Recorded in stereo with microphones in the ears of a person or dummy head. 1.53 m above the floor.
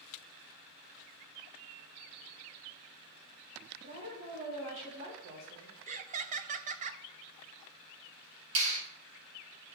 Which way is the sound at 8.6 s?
80° right.